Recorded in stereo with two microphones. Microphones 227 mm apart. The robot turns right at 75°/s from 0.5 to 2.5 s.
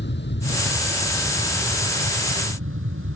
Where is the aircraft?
55° left (ahead or behind); by 3.2 s 70° right (ahead or behind).